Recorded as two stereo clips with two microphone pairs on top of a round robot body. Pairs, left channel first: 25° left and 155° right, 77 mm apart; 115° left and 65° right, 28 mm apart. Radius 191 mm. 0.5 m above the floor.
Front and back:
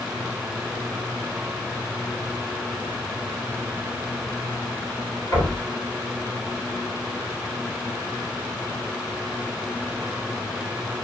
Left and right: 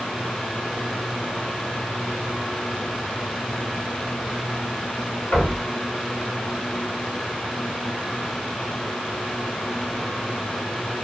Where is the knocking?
105° left, 2 m.